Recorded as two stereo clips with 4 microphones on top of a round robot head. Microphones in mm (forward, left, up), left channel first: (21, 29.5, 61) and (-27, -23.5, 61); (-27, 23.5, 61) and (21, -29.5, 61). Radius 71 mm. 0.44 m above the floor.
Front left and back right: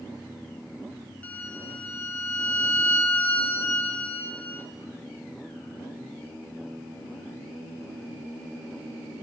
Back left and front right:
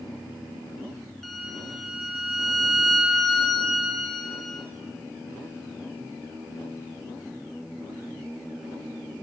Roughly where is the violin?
Ahead left.